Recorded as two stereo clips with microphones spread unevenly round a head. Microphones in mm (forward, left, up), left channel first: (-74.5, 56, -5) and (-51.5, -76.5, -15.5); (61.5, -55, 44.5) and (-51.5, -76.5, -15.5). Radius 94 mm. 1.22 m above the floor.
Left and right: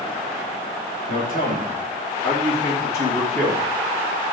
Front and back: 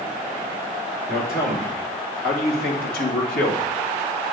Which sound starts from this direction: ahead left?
A man speaking, at 1.1 s.